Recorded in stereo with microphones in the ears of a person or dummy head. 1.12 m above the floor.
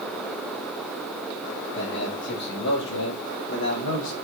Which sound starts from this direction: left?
A man speaking, at 1.8 s.